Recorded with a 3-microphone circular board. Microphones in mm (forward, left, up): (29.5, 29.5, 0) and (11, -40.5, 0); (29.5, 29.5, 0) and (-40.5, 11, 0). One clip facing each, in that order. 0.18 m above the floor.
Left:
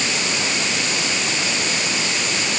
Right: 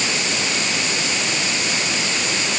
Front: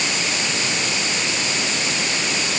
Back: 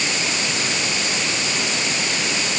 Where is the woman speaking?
I don't hear a woman speaking.